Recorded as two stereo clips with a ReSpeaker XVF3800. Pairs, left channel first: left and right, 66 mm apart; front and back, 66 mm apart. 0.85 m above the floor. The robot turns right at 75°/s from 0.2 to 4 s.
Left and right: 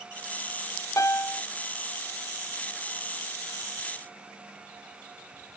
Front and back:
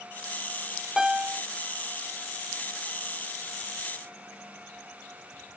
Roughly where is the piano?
Left.